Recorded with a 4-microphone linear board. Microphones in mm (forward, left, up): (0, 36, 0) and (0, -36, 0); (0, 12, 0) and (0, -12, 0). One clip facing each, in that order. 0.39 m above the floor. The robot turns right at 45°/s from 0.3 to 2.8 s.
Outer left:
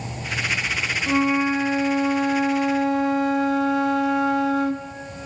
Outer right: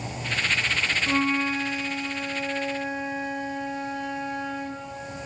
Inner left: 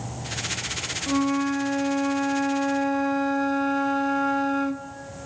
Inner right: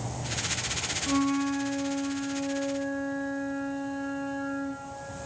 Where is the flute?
5° left, 0.8 m; by 4.9 s 85° left, 0.8 m.